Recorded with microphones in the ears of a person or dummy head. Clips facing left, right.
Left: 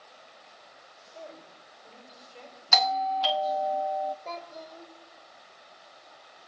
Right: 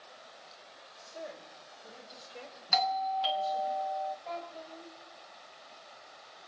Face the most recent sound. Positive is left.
turn(degrees=75)  # may be behind; listen again after turning